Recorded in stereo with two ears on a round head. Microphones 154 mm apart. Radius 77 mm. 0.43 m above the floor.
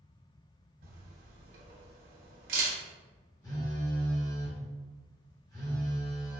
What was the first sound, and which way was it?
A camera shutter, 55° right (ahead or behind).